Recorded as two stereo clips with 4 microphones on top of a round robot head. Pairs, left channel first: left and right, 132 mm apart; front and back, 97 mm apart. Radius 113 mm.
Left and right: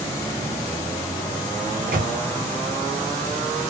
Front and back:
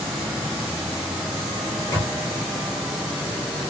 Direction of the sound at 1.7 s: 70° right.